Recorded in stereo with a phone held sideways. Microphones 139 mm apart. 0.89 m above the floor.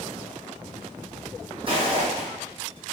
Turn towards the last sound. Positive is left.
turn(degrees=-40)  # may be behind; listen again after turning